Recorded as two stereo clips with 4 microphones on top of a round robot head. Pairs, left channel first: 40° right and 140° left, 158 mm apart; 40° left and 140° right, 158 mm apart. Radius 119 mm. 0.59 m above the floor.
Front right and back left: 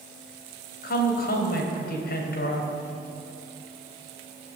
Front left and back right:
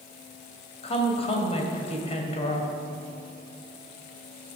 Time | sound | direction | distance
0.8 | a woman speaking | 15° right | 3 m